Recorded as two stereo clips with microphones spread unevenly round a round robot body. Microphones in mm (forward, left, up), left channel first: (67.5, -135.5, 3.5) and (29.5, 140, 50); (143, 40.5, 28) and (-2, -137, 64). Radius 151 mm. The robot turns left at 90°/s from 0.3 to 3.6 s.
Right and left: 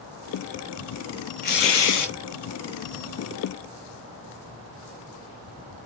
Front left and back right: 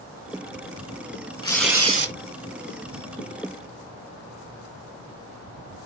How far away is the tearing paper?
About 2.5 m.